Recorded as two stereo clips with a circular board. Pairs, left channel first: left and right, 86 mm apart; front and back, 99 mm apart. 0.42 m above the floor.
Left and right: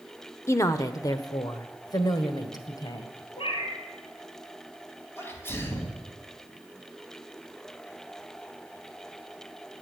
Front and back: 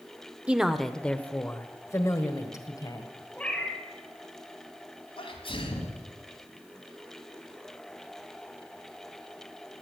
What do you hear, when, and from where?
0.5 s a woman speaking: 110° left, 0.9 m; by 3.1 s 50° left, 2 m
3.4 s a cat meowing: 80° left, 2.5 m
5.2 s a sneeze: 25° left, 3.5 m